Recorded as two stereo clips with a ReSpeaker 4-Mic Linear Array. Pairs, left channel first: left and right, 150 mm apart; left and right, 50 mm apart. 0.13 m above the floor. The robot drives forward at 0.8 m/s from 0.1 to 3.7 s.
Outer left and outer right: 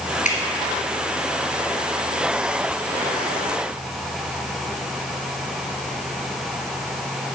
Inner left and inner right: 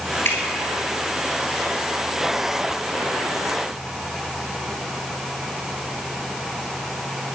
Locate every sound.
0.2 s dripping: 55° left (ahead or behind), 2.0 m